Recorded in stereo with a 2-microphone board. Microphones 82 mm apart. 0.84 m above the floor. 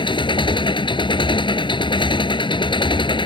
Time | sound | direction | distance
0.0 | an engine running | 75° left (ahead or behind) | ?